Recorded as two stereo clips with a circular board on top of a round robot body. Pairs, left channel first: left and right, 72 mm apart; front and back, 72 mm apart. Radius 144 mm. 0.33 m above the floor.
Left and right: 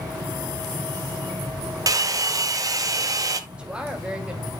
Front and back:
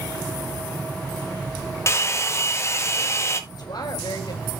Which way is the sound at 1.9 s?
50° right.